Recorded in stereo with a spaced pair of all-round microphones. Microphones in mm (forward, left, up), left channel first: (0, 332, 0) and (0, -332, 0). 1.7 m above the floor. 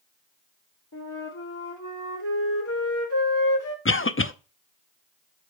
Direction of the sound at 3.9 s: 20° left (ahead or behind).